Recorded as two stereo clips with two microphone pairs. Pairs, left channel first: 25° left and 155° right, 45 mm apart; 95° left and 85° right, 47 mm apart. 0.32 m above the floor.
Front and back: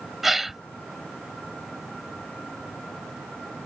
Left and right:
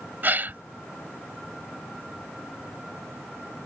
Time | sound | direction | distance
0.2 | a gasp | 70° right | ?